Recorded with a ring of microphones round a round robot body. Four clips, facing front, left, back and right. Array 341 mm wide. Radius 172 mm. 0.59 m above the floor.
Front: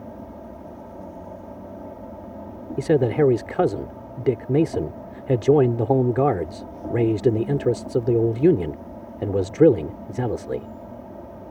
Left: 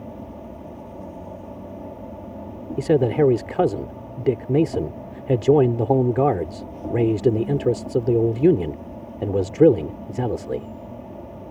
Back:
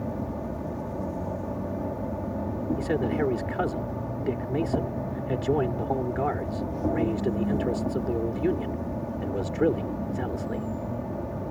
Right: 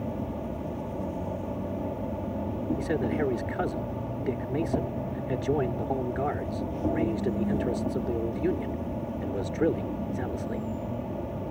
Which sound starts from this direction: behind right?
An insect, at 0.0 s.